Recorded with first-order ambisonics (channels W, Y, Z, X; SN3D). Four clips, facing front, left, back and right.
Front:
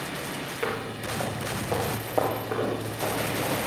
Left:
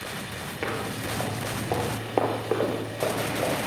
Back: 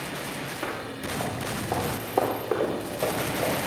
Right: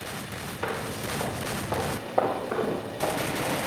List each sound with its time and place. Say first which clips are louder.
0.6 s footsteps: left 1 dB, front 4 dB; 50° left, 2.5 m; by 3.6 s 110° left, 3.5 m